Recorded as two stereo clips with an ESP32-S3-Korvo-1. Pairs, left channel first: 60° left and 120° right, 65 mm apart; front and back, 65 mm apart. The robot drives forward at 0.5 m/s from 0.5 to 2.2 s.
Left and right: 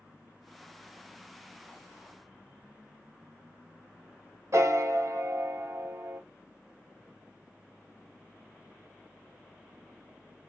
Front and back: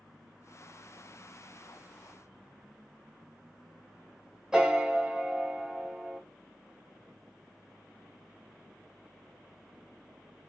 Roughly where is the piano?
Right.